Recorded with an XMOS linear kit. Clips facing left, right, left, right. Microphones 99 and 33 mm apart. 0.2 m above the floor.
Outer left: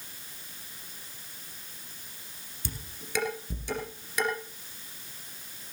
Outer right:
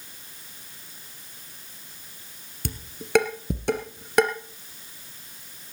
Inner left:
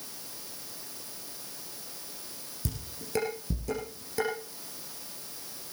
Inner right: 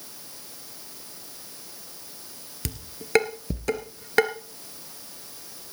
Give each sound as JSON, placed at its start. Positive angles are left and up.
{"t": 2.6, "sound": "dishes clattering", "side_deg": -70, "distance_m": 2.5}